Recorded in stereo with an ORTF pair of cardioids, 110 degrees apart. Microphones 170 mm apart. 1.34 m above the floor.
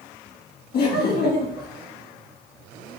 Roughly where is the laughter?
Ahead left.